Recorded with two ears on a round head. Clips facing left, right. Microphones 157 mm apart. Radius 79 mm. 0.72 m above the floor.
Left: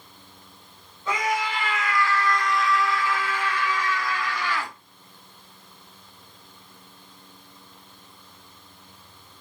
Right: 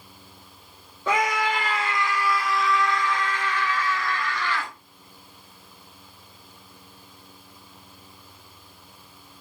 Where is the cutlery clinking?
I don't hear cutlery clinking.